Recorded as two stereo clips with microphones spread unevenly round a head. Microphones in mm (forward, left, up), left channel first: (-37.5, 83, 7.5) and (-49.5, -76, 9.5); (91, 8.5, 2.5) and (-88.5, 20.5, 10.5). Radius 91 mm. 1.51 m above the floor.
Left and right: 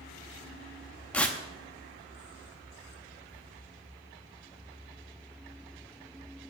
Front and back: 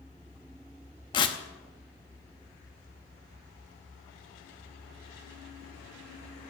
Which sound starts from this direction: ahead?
Tearing paper, at 1.1 s.